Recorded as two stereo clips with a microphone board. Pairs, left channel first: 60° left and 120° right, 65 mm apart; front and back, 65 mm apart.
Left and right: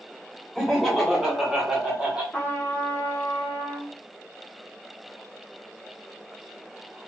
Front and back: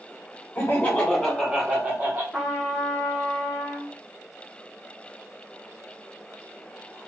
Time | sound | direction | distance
0.6 | laughter | 25° right | 0.9 m
2.3 | a trumpet | 100° left | 1.1 m